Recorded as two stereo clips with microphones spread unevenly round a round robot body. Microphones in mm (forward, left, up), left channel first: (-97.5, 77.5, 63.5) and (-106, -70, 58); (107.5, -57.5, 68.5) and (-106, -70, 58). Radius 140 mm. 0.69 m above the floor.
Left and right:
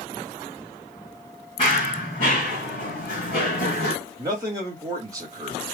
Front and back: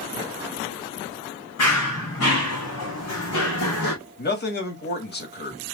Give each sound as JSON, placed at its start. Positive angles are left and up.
{"t": 1.6, "sound": "running footsteps", "azimuth_deg": 20, "distance_m": 3.5}
{"t": 4.2, "sound": "a man speaking", "azimuth_deg": -30, "distance_m": 1.7}